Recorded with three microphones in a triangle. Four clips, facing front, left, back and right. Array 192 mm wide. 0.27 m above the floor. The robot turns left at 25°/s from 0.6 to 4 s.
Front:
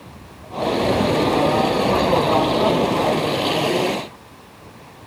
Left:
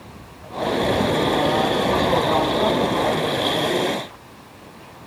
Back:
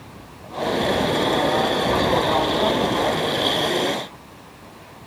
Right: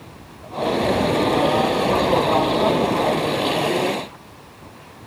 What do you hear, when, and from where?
Only background noise.